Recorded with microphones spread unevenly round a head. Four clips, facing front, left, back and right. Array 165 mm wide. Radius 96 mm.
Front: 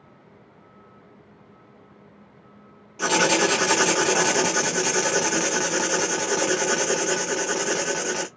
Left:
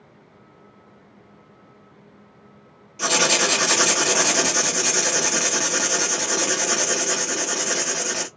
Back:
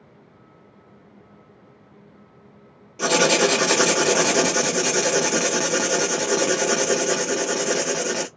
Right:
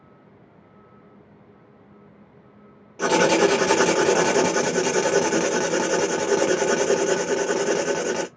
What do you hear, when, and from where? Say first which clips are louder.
3.0 s writing: right 5 dB, back 2 dB; 120° right, 0.9 m